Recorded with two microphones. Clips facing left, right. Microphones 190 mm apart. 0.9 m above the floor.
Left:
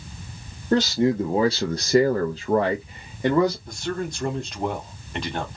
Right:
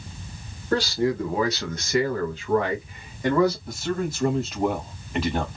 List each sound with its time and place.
0.7 s a man speaking: 20° left (ahead or behind), 0.9 m
3.7 s a man speaking: 5° right (ahead or behind), 1.1 m